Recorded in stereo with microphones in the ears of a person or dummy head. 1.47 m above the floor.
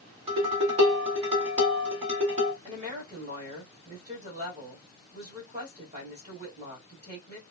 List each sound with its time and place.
0.3 s dishes clattering: 30° right (ahead or behind), 1.6 m
2.6 s a woman speaking: 35° right (ahead or behind), 2 m